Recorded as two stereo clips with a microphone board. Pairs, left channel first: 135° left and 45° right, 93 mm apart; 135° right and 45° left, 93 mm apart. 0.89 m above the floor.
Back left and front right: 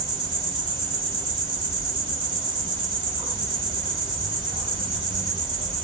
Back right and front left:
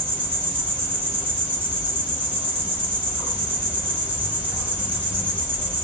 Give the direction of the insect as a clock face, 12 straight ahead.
1 o'clock.